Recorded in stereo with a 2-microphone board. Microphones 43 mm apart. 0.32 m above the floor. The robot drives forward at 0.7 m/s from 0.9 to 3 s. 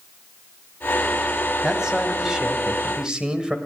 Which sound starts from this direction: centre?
A man speaking, at 1.6 s.